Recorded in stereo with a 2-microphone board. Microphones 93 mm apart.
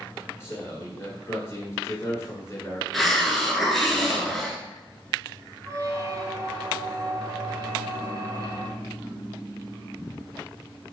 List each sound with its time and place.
0.4 s a man speaking: 30° left (ahead or behind), 1.2 m
2.9 s a hiss: centre (ahead or behind), 0.9 m
5.7 s a squeak: 35° right (ahead or behind), 1.1 m